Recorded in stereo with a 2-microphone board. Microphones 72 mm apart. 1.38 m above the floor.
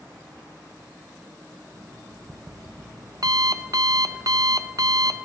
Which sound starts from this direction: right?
An alarm clock, at 1.7 s.